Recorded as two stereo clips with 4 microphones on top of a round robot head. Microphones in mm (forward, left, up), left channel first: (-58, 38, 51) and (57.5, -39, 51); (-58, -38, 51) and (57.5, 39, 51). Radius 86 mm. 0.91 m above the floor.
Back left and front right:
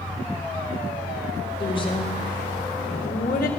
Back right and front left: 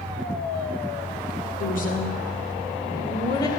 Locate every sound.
1.6 s a woman speaking: 155° right, 3 m; by 3.5 s 150° left, 2.5 m